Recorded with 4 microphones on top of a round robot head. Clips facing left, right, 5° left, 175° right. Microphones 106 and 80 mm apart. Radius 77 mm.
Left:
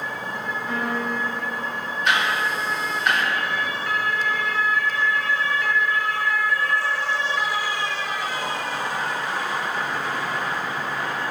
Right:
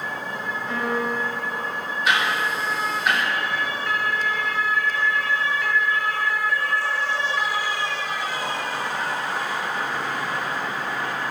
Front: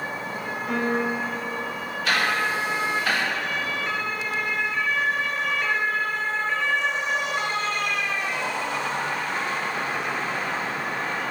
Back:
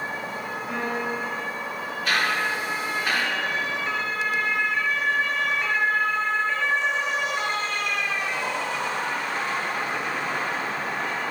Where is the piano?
5° left, 2.5 m.